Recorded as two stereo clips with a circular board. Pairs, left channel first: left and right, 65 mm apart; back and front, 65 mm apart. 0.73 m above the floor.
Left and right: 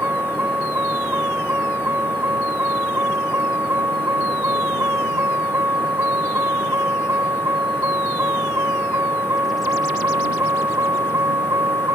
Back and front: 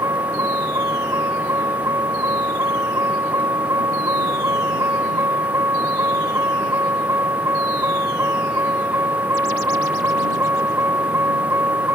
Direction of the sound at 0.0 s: 35° right.